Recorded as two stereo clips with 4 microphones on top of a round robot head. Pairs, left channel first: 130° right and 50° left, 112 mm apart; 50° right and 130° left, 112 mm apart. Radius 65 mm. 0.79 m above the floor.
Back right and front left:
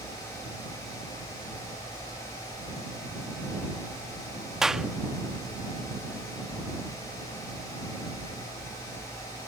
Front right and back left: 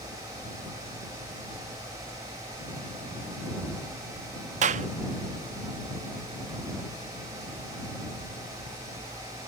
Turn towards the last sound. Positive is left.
turn(degrees=135)